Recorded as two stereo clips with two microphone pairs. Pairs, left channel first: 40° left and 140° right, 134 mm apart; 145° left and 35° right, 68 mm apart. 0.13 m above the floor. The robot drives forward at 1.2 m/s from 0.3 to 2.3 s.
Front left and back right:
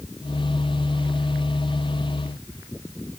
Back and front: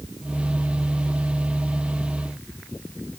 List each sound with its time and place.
Only background noise.